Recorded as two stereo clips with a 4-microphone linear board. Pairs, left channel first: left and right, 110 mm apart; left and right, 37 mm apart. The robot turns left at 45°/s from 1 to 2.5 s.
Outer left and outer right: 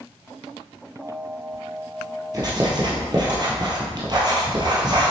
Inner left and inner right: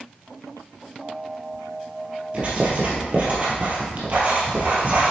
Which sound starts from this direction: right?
Writing, at 2.3 s.